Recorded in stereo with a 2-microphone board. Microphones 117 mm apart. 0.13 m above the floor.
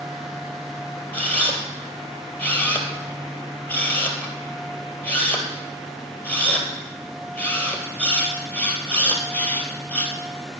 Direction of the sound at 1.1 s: 15° left (ahead or behind).